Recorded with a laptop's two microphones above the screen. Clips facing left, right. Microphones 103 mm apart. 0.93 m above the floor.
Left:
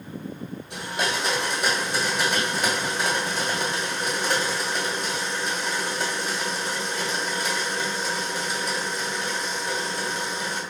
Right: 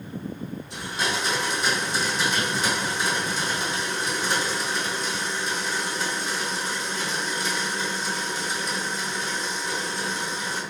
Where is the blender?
60° left (ahead or behind), 1.2 m.